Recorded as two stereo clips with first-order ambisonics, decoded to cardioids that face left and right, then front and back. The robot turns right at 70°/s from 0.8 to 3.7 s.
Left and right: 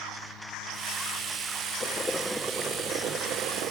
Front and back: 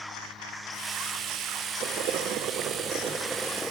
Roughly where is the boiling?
Behind left.